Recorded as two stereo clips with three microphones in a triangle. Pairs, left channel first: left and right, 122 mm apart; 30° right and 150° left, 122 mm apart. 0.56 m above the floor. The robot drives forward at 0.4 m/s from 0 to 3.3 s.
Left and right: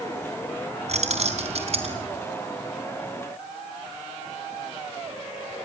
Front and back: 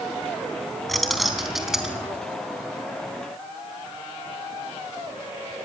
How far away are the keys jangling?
About 3.5 m.